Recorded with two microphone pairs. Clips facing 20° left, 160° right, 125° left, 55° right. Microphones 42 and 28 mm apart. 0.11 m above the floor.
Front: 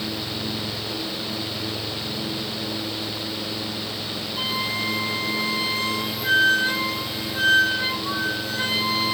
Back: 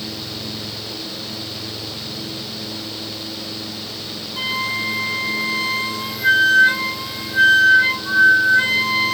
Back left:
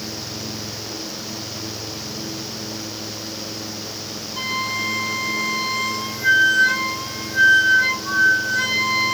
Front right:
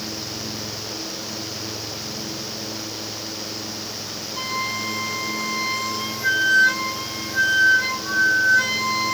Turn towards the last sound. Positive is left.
turn(degrees=-145)